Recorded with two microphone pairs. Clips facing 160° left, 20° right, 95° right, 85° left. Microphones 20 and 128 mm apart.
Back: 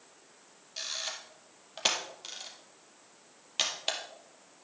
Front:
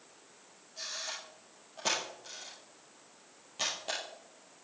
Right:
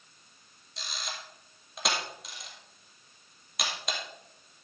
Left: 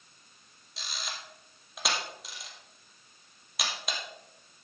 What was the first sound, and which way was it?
A camera shutter, 175° left.